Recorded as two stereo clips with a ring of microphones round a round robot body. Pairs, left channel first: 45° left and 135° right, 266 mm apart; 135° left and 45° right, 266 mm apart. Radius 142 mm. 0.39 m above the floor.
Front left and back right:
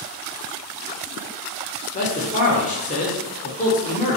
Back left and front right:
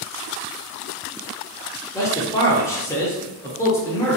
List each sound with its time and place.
1.9 s a man speaking: 65° left, 0.9 m